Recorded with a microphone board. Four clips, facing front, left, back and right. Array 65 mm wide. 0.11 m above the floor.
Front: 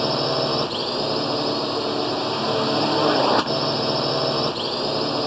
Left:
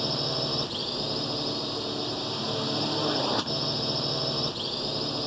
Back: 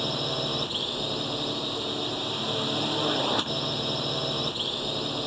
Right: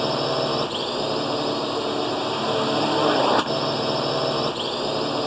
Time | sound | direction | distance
0.0 | a drone | 40° right | ?